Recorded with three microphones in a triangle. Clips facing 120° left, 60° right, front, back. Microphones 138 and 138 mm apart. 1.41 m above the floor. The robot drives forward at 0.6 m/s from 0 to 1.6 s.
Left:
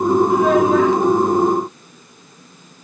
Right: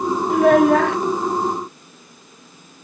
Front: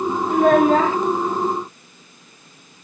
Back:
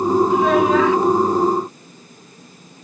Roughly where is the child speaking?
Ahead right.